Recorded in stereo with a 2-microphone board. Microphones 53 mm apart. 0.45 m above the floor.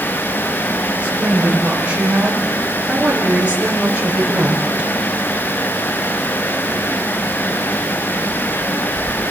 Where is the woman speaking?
25° right (ahead or behind), 8 m; by 4.9 s 30° right (ahead or behind), 5 m.